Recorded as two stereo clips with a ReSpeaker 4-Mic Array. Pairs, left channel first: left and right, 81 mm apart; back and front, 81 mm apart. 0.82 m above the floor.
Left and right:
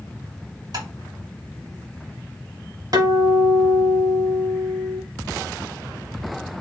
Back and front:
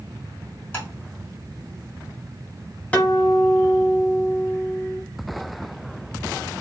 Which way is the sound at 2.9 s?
110° right.